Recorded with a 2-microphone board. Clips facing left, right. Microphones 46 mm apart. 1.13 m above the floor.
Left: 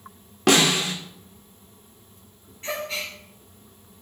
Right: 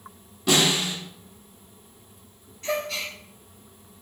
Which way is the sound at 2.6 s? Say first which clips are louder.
Right 2 dB; 25° left (ahead or behind).